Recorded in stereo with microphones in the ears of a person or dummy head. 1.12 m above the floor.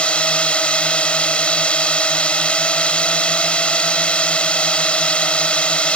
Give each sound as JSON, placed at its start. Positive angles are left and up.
{"t": 0.0, "sound": "a drone", "side_deg": 5}